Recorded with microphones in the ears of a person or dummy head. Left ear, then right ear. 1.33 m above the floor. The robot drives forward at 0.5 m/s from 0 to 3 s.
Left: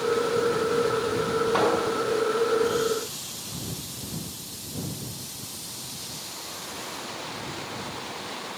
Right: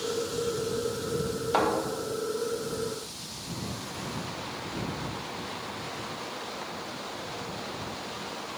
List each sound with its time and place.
1.5 s a thud: 65° right (ahead or behind), 3.5 m; by 1.7 s 70° right (ahead or behind), 3.5 m